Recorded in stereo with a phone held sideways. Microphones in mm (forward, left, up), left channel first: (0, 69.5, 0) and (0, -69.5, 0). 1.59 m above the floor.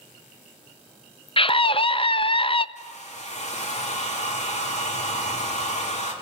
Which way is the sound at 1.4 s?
40° left (ahead or behind).